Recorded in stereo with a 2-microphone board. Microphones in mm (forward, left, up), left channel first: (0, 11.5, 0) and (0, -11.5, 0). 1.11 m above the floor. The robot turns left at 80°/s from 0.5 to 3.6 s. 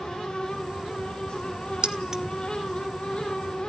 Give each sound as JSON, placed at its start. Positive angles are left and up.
{"t": 1.8, "sound": "keys jangling", "side_deg": -45, "distance_m": 0.7}